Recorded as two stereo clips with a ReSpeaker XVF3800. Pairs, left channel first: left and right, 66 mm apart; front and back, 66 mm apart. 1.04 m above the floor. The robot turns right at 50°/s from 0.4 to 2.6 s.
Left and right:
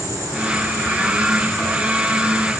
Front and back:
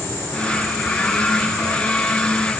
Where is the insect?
50° right, 2.5 m; by 2.6 s 60° left, 2.5 m.